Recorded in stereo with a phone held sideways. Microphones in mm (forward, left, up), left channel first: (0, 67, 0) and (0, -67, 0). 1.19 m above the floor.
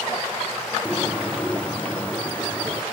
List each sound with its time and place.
0.8 s a bird: 10° left (ahead or behind), 0.5 m